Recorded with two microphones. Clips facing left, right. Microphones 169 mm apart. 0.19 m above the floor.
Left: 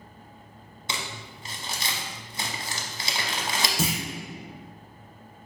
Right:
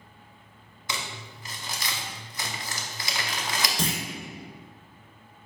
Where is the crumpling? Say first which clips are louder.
Left 1 dB; 25° left (ahead or behind), 0.6 m.